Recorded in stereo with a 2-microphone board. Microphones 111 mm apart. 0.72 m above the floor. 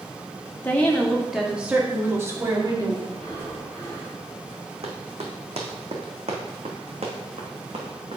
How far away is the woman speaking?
About 1.6 m.